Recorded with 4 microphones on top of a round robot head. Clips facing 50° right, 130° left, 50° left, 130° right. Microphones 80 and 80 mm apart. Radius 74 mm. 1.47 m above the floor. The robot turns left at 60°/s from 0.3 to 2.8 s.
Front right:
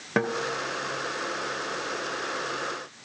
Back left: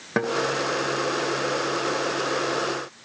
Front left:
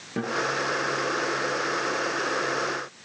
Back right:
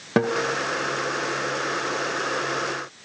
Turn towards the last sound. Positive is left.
turn(degrees=65)